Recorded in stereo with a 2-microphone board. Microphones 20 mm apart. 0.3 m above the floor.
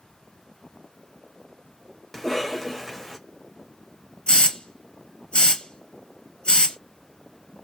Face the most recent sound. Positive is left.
turn(degrees=60)  # may be behind; listen again after turning